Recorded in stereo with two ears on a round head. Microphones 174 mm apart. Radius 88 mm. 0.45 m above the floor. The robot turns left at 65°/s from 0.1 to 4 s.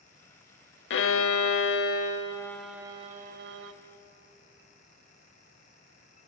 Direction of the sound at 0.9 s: 110° left.